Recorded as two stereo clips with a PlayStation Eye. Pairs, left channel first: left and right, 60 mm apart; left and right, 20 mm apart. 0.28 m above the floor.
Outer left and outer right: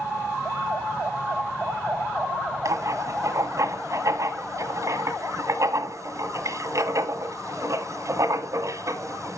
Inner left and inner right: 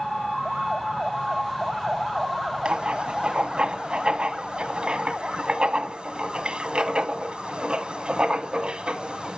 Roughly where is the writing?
Right.